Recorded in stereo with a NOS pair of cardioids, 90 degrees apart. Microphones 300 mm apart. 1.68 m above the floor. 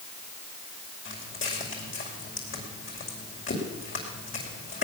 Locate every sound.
1.1 s footsteps: 45° left, 6 m